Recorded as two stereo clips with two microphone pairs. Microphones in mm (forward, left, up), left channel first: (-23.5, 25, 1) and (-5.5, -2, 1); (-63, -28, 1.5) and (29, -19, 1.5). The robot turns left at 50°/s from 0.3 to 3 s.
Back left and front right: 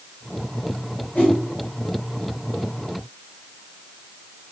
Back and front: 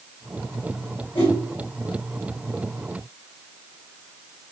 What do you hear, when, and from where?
1.1 s a whoosh: 160° left, 3.5 m; by 1.4 s 145° left, 3.5 m